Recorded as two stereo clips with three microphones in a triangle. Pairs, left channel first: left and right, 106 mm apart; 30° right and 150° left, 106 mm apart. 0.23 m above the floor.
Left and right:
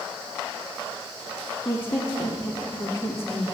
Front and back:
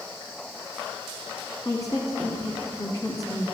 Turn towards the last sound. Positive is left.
turn(degrees=15)